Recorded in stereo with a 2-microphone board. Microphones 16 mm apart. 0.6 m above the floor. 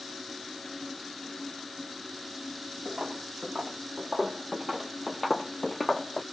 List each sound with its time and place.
2.9 s footsteps: 65° right (ahead or behind), 1.4 m; by 6.2 s 35° left (ahead or behind), 0.8 m